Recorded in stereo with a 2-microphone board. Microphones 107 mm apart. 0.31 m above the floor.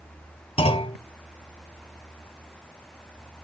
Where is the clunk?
70° left (ahead or behind), 1.4 m.